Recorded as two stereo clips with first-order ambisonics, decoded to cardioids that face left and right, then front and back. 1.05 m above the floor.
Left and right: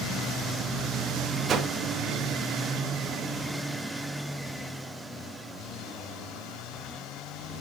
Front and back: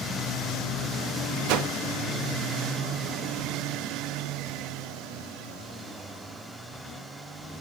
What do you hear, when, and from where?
1.5 s a whoosh: 150° right, 1.0 m